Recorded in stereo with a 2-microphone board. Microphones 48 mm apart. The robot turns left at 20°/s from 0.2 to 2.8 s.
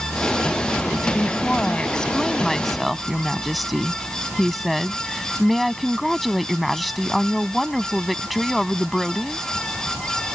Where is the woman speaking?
35° left; by 9.4 s straight ahead.